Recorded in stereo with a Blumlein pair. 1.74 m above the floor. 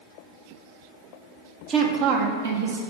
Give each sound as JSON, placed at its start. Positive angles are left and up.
{"t": 1.7, "sound": "a woman speaking", "azimuth_deg": -30, "distance_m": 1.2}